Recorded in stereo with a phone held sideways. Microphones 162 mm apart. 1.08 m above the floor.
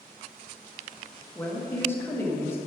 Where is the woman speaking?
15° left (ahead or behind), 1.4 m.